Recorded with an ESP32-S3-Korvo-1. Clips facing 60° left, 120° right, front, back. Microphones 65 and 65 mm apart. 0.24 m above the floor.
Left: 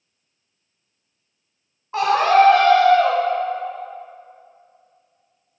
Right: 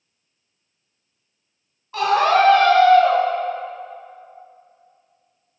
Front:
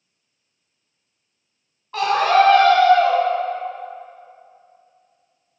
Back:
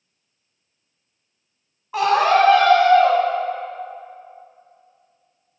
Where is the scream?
110° left, 1.9 m.